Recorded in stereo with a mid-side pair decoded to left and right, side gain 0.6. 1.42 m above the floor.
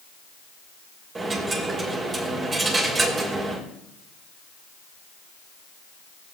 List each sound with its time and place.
1.1 s a dropped coin: 30° right, 3 m